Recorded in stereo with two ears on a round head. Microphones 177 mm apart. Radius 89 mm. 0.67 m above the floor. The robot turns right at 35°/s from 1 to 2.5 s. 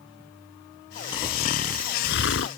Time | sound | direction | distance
1.1 | snoring | 20° left | ?